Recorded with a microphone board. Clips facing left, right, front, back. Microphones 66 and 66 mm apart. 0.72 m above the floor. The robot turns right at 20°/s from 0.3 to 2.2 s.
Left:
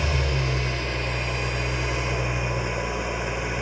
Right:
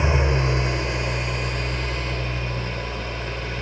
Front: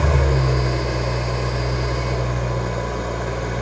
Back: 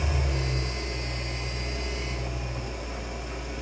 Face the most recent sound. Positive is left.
turn(degrees=15)